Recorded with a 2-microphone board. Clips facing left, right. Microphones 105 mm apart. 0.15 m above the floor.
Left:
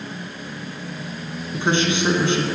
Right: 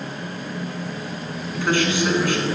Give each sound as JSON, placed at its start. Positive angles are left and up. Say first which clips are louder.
{"t": 1.5, "sound": "a man speaking", "louder": "even", "side_deg": 25, "distance_m": 1.2}